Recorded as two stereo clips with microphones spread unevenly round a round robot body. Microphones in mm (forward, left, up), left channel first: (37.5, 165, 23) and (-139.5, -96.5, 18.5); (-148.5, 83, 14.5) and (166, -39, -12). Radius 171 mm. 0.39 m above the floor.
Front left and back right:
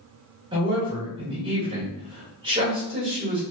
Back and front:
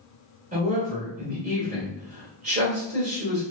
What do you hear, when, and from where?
0.5 s a woman speaking: 60° right, 1.3 m